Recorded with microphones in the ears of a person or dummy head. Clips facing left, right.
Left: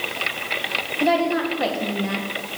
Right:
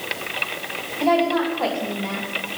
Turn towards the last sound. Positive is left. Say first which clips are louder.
# right 1 dB
turn(degrees=15)  # may be behind; listen again after turning